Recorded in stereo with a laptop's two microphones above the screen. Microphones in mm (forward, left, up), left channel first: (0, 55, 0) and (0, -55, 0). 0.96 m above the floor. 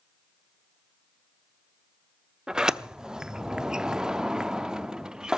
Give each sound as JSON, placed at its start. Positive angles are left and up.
{"t": 2.5, "sound": "a sliding door", "side_deg": -5, "distance_m": 0.6}